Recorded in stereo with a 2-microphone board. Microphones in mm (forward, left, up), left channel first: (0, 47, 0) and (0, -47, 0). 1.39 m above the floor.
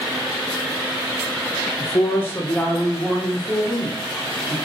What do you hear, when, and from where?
1.8 s a man speaking: 40° left (ahead or behind), 0.6 m; by 4.5 s 10° right (ahead or behind), 2 m